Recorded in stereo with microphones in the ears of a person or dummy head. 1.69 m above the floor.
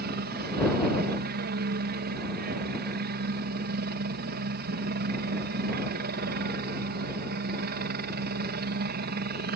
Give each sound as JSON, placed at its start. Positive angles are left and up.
{"t": 0.0, "sound": "a helicopter", "side_deg": -50}